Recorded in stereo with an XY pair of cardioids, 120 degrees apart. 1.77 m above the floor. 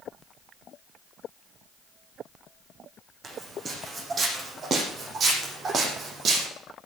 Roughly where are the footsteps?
Ahead right.